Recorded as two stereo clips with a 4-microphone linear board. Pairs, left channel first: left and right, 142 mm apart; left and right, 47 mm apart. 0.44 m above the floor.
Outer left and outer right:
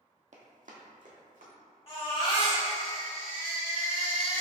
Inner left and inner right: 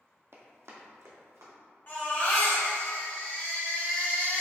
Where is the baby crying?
40° left (ahead or behind), 1.6 m.